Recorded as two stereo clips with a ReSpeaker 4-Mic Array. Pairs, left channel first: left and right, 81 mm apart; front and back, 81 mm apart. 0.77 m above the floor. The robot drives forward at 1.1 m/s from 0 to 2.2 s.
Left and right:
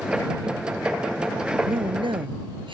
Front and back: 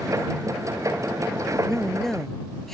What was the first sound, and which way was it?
A man speaking, 85° right.